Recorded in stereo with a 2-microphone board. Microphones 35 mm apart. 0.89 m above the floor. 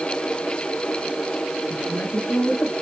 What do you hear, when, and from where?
1.7 s a woman speaking: 65° left (ahead or behind), 5 m; by 2.7 s 70° left (ahead or behind), 4.5 m